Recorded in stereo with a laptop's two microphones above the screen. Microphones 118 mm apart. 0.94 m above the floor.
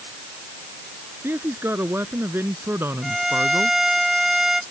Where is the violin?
5° right (ahead or behind).